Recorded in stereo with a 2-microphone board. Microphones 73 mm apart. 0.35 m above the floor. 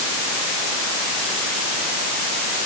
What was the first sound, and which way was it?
Only background noise.